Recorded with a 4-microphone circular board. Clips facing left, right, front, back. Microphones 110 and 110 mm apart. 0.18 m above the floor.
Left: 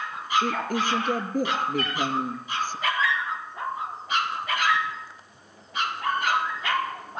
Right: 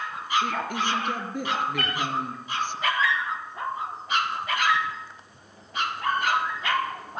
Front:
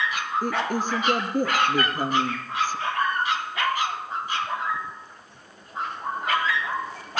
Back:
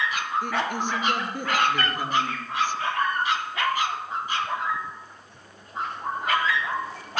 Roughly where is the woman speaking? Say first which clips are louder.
Left 2 dB, front 1 dB; ahead left.